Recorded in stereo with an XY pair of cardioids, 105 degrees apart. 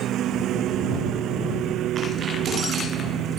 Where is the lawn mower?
70° right.